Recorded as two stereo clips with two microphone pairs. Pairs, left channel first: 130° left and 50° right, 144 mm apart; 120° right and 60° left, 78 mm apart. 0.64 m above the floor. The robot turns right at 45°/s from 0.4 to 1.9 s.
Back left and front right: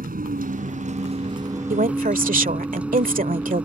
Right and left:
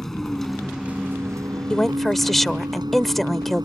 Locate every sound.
0.0 s a vehicle: 35° right; by 3.6 s 30° left
1.7 s a woman speaking: 45° right; by 3.6 s 35° right